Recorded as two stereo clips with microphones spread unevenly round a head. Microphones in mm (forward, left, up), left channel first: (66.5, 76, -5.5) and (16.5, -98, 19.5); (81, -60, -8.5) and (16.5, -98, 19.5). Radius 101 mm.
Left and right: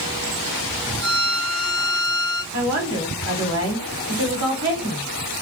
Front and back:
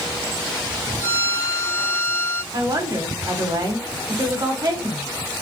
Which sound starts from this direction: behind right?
A woman speaking, at 2.5 s.